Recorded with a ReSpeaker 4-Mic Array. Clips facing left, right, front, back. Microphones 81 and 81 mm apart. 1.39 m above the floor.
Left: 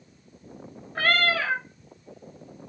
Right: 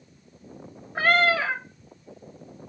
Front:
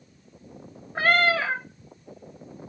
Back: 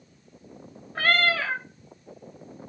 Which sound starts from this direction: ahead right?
A cat meowing, at 0.9 s.